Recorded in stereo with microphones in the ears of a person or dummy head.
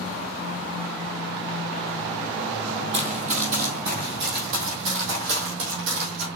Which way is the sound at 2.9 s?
35° right (ahead or behind).